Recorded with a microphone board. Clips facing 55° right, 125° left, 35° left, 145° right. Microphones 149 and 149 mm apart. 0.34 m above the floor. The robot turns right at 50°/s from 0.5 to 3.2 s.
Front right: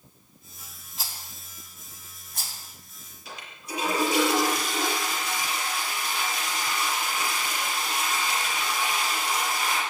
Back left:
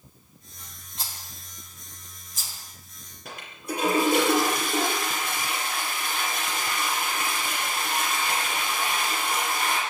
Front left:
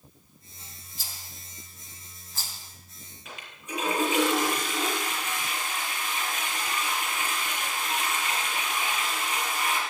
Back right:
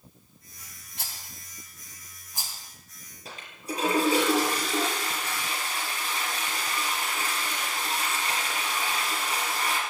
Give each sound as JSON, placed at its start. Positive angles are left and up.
{"t": 1.0, "sound": "a rattle", "azimuth_deg": -145, "distance_m": 3.0}
{"t": 3.2, "sound": "a toilet flushing", "azimuth_deg": 160, "distance_m": 5.0}